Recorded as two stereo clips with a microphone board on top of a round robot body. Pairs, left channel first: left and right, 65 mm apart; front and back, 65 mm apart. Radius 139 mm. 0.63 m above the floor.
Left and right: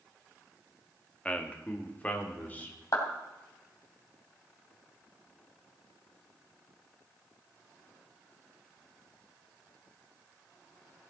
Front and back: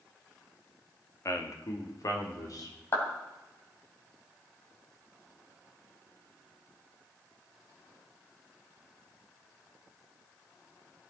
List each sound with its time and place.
1.2 s a man speaking: 20° left, 1.8 m; by 2.8 s 25° left, 3.5 m
2.9 s a clap: 55° left, 3 m